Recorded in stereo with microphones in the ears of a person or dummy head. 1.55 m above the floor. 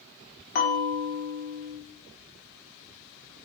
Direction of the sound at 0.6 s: 55° left (ahead or behind).